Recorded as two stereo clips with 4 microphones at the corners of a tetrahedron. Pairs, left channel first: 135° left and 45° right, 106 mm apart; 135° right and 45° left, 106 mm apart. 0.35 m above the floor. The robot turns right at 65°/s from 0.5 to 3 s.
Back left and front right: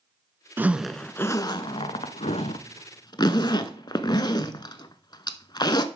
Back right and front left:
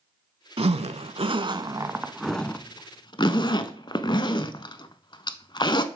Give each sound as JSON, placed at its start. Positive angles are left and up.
{"t": 0.6, "sound": "a zipper", "azimuth_deg": 25, "distance_m": 0.5}